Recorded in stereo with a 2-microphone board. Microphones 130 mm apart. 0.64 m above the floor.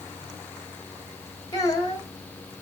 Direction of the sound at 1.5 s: 30° left (ahead or behind).